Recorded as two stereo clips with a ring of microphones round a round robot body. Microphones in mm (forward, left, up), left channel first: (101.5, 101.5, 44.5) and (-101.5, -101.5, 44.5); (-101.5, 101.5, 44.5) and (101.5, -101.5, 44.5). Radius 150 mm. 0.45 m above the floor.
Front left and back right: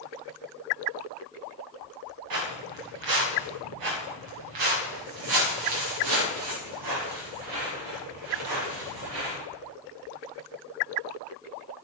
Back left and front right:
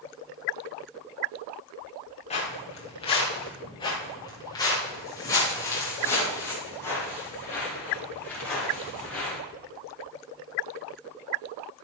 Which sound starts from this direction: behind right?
Footsteps, at 2.3 s.